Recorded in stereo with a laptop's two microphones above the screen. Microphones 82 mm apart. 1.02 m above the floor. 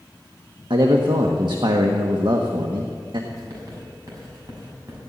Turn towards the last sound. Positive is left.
turn(degrees=-45)  # may be behind; listen again after turning